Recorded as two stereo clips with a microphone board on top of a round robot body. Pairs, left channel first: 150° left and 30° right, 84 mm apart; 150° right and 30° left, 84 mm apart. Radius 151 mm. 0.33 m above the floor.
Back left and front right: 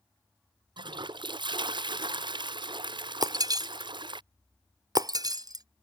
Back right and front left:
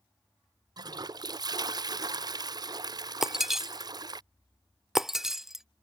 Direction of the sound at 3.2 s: 55° right.